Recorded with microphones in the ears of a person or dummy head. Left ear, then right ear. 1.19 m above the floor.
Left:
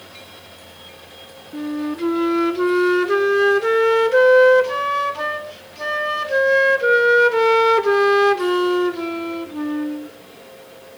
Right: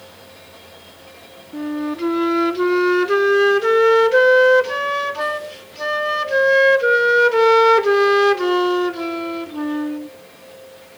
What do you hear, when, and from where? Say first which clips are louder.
1.5 s a flute: right 1 dB; 10° right (ahead or behind), 0.7 m